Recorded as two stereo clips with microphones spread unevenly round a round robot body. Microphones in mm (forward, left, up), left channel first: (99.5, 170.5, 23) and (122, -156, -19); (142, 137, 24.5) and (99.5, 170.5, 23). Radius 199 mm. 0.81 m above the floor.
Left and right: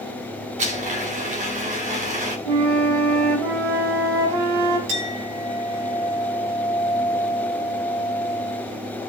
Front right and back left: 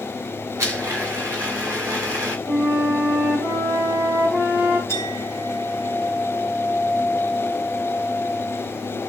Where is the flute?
125° right, 1.9 m.